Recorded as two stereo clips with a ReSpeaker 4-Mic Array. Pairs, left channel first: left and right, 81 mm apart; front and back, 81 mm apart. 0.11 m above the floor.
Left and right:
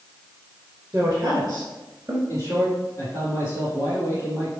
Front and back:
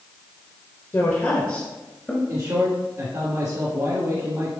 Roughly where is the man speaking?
Behind left.